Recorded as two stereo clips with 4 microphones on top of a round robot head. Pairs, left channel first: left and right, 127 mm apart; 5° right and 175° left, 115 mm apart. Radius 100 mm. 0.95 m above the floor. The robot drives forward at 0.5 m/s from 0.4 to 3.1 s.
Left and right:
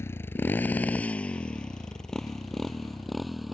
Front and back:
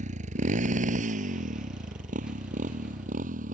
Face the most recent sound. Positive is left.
turn(degrees=180)